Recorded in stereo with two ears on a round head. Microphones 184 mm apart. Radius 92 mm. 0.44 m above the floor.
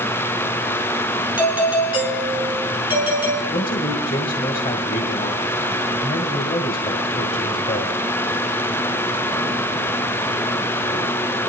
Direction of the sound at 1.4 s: 10° right (ahead or behind).